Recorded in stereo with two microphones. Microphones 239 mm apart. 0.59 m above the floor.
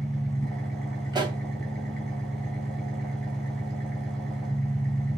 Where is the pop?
20° right (ahead or behind), 3 m.